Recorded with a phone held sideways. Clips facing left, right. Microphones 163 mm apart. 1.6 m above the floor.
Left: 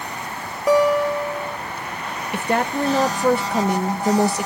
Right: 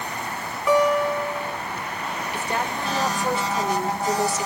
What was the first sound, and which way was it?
A guitar, 40° left (ahead or behind).